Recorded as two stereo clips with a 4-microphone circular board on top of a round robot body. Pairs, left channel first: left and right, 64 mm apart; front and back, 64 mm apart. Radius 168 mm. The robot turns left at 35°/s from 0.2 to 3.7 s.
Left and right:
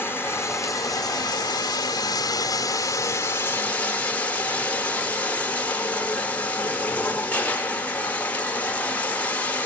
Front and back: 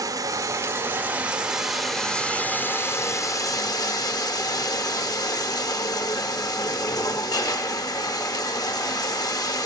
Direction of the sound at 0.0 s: 145° left.